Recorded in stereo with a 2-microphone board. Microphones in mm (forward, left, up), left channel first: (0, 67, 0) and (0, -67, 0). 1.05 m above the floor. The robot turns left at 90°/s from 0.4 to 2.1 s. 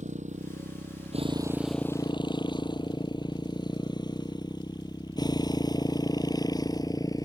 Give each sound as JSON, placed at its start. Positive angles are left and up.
{"t": 0.0, "sound": "a motorcycle", "side_deg": -65}